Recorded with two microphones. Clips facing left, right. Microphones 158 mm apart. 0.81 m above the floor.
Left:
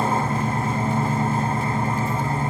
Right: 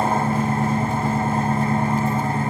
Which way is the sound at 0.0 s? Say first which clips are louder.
Right 2 dB; 60° right (ahead or behind).